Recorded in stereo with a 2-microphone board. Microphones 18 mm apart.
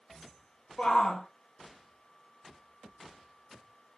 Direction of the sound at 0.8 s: 65° left (ahead or behind).